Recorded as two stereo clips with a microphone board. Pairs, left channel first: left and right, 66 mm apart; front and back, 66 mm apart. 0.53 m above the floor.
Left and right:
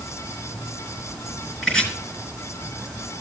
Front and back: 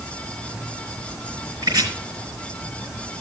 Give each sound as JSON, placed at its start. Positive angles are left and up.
{"t": 1.6, "sound": "chopping", "azimuth_deg": 165, "distance_m": 4.5}